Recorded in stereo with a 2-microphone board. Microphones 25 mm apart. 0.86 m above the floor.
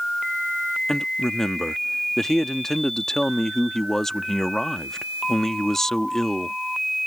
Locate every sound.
0.9 s a man speaking: 15° left (ahead or behind)